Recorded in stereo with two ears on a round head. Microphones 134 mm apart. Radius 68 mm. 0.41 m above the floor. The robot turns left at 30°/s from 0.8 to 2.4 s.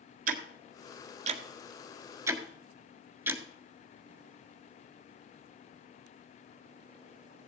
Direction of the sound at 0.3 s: 65° right (ahead or behind).